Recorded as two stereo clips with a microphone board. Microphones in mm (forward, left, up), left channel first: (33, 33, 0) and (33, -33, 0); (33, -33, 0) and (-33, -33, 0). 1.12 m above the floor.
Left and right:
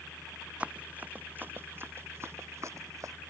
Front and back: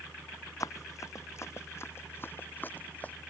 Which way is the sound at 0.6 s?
20° right.